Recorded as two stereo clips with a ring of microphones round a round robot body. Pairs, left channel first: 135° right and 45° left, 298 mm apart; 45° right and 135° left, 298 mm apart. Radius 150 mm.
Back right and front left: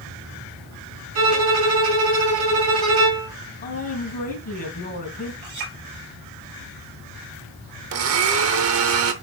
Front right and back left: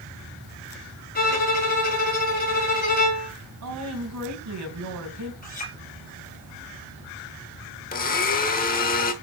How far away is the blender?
About 0.9 m.